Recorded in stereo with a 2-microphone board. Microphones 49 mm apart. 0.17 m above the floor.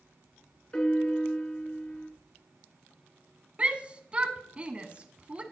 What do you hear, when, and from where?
0.7 s a piano: 20° left (ahead or behind), 2.5 m
3.6 s a shout: 25° right (ahead or behind), 1.1 m